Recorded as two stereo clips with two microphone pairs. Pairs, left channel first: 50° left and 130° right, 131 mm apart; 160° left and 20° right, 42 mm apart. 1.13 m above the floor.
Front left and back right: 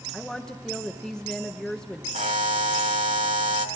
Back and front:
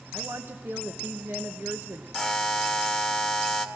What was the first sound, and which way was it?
A woman speaking, 30° right.